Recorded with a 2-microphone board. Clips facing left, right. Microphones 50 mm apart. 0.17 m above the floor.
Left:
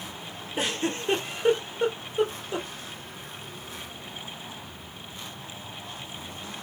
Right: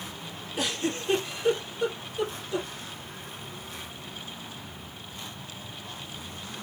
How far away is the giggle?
About 2 m.